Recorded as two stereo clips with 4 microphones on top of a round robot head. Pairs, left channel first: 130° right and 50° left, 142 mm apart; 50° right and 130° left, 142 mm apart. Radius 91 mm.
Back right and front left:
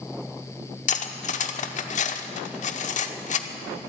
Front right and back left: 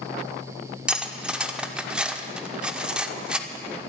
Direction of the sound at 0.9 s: 150° right.